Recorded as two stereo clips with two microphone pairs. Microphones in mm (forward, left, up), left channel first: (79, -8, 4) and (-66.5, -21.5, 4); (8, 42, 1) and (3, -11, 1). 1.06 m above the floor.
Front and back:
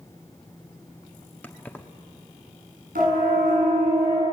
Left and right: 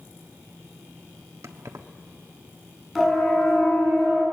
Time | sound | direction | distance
1.4 | keys jangling | 75° right | 1.3 m
3.0 | a siren | 170° left | 8 m